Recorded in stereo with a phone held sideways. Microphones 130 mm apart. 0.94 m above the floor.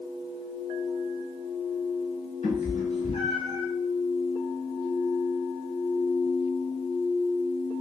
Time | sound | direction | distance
2.4 | a cat meowing | 60° left (ahead or behind) | 1.5 m